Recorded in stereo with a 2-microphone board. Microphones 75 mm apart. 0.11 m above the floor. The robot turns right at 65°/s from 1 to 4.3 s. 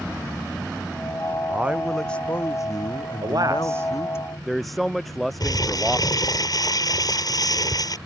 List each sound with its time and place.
1.5 s a man speaking: 25° right; by 4.2 s 150° left
3.2 s a man speaking: 70° right; by 6.3 s straight ahead
5.4 s crumpling: 60° left (ahead or behind)